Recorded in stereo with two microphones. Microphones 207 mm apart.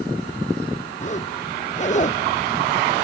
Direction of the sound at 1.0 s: 40° left (ahead or behind).